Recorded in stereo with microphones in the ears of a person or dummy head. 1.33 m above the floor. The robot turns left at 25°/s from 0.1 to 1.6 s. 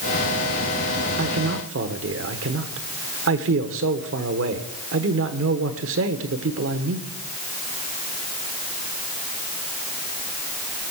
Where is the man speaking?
70° right (ahead or behind), 1.2 m; by 7.1 s 65° right (ahead or behind), 1.2 m.